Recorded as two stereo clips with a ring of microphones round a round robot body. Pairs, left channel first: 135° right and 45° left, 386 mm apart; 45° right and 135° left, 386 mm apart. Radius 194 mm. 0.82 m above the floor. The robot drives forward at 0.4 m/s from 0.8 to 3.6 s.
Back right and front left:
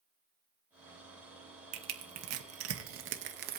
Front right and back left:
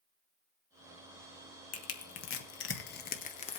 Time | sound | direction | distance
1.7 | crushing | 5° left | 1.2 m